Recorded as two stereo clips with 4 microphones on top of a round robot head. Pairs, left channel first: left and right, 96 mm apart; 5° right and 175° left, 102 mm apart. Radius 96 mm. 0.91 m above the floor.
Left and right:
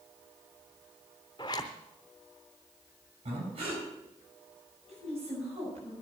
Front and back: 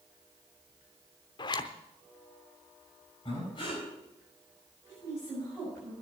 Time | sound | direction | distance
1.4 | a zipper | 30° left | 0.7 m
3.2 | breathing | 60° right | 7.5 m
4.9 | a woman speaking | 90° right | 7.5 m